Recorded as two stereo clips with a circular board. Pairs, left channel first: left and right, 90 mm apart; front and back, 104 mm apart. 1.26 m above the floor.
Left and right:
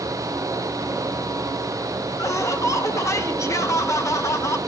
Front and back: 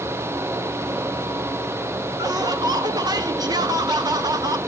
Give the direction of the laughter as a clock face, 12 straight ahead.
7 o'clock.